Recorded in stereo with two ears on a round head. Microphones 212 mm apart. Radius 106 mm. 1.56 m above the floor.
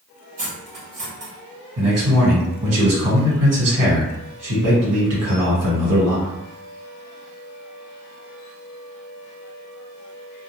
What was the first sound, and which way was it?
Cutlery clinking, 30° right (ahead or behind).